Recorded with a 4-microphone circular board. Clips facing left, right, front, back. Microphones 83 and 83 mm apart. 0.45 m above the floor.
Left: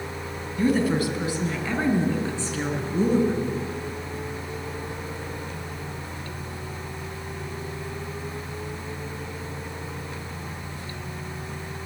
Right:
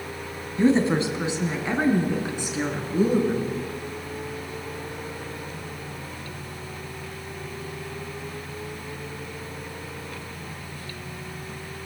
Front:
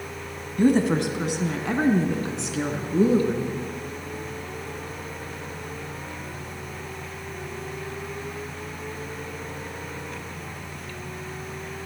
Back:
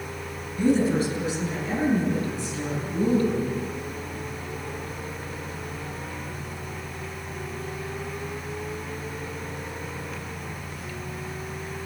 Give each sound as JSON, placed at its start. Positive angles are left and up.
{"t": 0.6, "sound": "a woman speaking", "azimuth_deg": -30, "distance_m": 2.5}